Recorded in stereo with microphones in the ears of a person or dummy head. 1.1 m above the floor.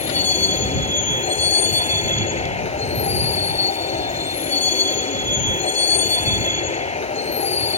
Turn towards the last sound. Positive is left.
turn(degrees=30)  # may be behind; listen again after turning